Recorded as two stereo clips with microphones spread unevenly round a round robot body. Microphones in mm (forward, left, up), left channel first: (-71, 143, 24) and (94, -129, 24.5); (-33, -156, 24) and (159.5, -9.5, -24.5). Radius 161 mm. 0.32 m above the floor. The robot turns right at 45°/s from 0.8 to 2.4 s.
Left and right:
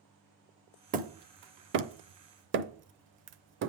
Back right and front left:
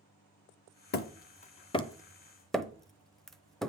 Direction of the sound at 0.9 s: 105° right.